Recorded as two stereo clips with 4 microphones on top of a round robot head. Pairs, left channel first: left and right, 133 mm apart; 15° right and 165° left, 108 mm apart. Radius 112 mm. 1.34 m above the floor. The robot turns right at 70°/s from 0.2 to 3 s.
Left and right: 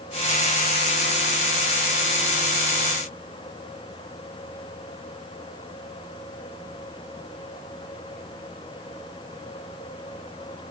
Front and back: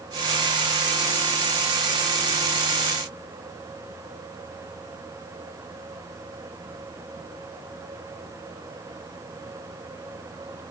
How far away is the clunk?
No clunk in this recording.